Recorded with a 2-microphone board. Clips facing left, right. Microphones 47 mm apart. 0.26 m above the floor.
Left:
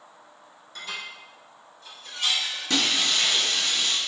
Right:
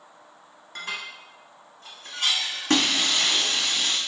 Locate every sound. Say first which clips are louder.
0.8 s dishes clattering: right 2 dB; 55° right (ahead or behind), 1.4 m
2.7 s breaking glass: right 2 dB; 55° right (ahead or behind), 1.1 m